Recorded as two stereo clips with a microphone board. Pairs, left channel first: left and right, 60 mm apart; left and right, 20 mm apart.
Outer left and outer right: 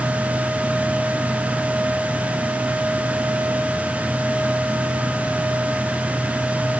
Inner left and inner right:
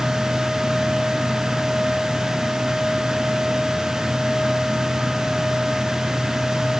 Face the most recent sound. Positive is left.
No sound to turn to.